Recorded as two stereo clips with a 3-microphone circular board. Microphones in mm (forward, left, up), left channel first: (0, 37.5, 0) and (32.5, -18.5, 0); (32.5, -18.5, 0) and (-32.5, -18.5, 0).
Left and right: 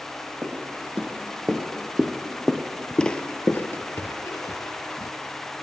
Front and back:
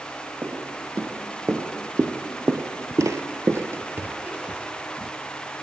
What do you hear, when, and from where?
0.4 s footsteps: 125° right, 3 m; by 5.1 s 95° left, 1.6 m